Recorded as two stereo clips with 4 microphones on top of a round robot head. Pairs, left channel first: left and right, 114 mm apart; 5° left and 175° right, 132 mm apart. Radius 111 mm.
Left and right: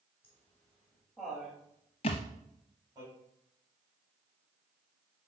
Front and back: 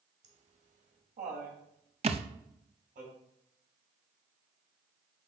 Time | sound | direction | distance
0.2 | laughter | 160° left | 3 m
2.0 | a thud | 140° left | 0.8 m